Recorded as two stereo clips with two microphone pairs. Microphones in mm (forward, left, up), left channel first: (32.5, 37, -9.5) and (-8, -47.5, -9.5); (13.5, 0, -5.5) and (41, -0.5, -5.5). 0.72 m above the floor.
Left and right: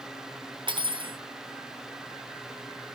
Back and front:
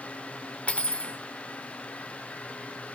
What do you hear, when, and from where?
0.7 s cutlery clinking: 145° right, 1.2 m